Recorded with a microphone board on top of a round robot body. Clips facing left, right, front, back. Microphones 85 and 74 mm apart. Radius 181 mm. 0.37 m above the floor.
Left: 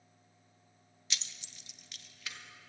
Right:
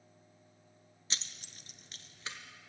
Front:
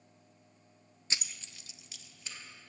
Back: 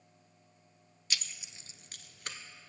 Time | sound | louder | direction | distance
1.1 | keys jangling | even, even | 50° right | 0.6 m